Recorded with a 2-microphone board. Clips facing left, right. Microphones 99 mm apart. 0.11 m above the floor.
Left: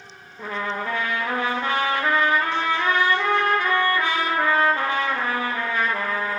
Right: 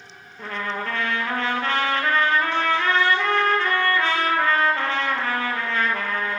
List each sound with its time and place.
0.4 s a trumpet: 15° left (ahead or behind), 0.9 m